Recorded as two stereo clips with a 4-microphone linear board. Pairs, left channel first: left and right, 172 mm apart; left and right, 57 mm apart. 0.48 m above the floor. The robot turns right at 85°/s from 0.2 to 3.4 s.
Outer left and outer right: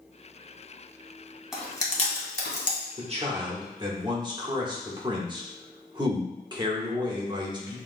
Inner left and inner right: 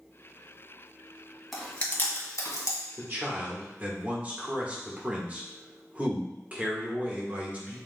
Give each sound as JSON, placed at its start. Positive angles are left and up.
{"t": 1.5, "sound": "chewing", "side_deg": -5, "distance_m": 1.2}
{"t": 3.0, "sound": "a man speaking", "azimuth_deg": -80, "distance_m": 1.1}